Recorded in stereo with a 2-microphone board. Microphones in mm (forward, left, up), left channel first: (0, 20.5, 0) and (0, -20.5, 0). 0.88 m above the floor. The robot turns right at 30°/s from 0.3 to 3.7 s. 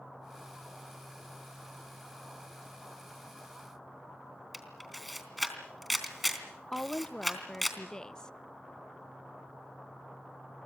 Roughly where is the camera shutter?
Centre.